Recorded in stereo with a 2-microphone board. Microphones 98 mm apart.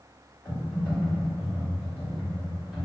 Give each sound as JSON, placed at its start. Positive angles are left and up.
{"t": 0.5, "sound": "typing on a keyboard", "side_deg": 15, "distance_m": 1.9}